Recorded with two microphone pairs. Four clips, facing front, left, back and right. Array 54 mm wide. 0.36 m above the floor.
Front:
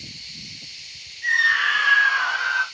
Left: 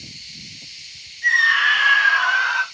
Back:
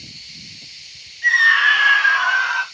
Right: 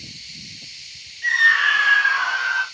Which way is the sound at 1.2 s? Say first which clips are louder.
Even, back 5 dB; 170° right.